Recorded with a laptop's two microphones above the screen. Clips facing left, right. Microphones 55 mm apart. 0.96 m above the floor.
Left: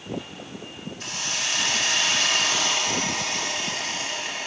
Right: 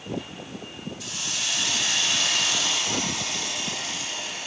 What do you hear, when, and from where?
1.0 s a hiss: 50° left (ahead or behind), 0.7 m